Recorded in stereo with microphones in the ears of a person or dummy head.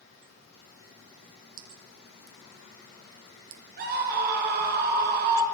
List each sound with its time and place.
1.6 s dripping: 70° right (ahead or behind), 4 m
3.8 s a scream: 55° right (ahead or behind), 6.5 m